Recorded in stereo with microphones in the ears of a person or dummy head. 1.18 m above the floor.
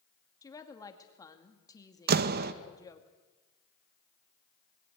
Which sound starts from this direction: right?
A door slam, at 2.1 s.